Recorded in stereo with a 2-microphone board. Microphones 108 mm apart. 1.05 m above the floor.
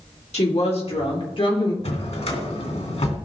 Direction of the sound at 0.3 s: 75° left (ahead or behind).